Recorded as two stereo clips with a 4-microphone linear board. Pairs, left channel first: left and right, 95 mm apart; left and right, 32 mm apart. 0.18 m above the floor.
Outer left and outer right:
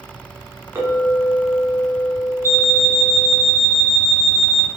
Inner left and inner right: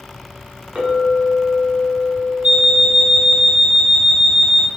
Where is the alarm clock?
25° right (ahead or behind), 0.9 m.